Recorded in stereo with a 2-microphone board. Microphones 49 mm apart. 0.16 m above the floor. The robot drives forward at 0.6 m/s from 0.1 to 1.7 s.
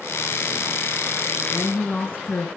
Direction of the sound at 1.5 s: 50° left (ahead or behind).